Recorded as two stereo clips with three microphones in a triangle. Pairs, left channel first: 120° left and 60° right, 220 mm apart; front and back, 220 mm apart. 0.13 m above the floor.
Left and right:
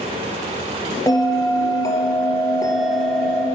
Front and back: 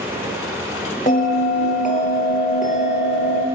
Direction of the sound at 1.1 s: 45° left.